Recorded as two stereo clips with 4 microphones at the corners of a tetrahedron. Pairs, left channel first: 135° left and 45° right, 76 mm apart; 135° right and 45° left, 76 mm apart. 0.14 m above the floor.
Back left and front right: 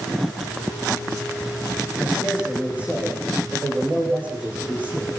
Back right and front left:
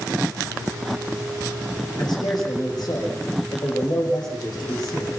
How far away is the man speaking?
About 8.5 m.